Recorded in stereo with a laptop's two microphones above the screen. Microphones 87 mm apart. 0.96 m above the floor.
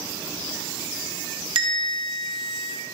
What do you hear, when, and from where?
1.6 s a bell: 65° right (ahead or behind), 1.1 m